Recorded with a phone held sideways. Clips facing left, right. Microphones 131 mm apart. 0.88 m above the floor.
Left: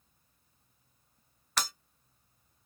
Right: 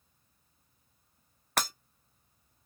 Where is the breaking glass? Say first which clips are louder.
Right 3 dB; 55° right (ahead or behind), 0.5 m.